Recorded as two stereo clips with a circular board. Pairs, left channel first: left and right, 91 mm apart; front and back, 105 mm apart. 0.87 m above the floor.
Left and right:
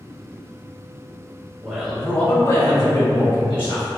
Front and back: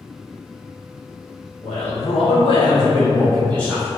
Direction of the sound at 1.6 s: 10° right.